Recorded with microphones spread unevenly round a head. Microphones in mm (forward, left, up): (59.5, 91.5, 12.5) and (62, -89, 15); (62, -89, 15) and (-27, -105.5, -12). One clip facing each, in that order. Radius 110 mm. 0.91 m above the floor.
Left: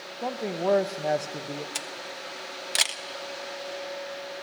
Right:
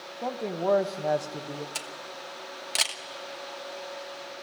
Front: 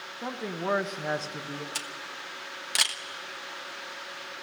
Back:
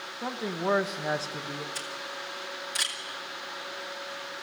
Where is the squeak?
I don't hear a squeak.